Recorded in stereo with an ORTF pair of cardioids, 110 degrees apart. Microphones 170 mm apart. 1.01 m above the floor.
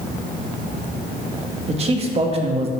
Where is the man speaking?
40° right, 1.6 m.